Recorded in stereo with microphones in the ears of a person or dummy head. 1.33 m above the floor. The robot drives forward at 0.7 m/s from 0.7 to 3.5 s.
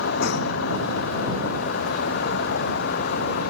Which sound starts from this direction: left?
A vehicle, at 0.0 s.